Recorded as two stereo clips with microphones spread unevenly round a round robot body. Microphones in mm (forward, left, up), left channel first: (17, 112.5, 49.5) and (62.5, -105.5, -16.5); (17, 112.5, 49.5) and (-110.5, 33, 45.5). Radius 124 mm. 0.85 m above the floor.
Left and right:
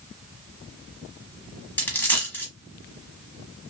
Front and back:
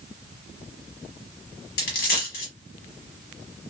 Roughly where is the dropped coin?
Ahead left.